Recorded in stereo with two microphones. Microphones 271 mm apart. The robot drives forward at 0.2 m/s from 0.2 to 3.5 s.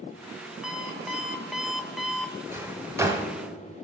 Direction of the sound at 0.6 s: Centre (ahead or behind).